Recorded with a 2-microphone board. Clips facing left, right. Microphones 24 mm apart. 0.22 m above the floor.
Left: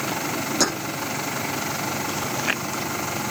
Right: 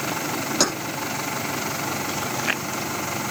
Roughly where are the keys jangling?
Right.